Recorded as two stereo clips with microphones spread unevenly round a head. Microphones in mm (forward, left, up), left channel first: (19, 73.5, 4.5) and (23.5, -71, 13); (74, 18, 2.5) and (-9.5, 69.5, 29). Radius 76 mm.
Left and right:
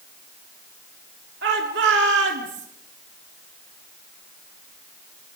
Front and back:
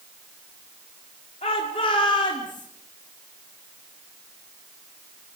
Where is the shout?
80° right, 3.5 m; by 2.7 s 90° right, 3.5 m.